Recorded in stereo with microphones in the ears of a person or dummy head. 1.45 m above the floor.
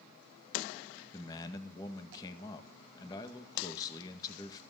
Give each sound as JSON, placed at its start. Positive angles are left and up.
{"t": 1.1, "sound": "a man speaking", "side_deg": 20, "distance_m": 2.0}